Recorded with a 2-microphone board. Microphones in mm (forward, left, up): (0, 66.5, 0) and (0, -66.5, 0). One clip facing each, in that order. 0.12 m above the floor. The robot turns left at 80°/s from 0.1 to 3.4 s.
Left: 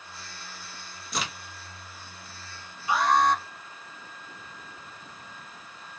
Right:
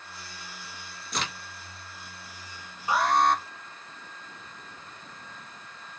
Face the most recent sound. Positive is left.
turn(degrees=-85)